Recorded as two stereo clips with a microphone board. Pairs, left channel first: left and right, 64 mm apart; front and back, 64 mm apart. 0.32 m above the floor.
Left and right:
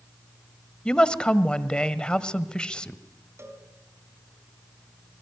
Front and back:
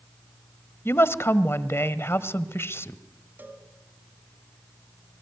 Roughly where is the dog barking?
I don't hear a dog barking.